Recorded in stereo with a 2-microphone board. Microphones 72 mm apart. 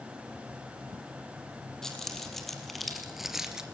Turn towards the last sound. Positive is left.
turn(degrees=-10)  # may be behind; listen again after turning